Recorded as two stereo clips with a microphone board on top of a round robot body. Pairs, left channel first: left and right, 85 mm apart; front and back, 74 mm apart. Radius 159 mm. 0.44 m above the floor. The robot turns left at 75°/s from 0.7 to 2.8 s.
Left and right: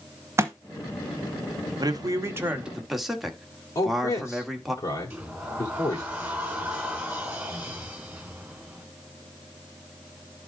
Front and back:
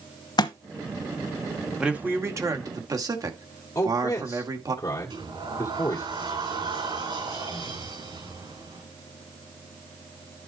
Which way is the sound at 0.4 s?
30° right.